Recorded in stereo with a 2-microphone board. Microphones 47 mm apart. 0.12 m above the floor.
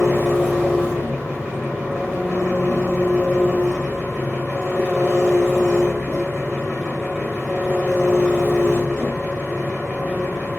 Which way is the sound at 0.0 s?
15° left (ahead or behind).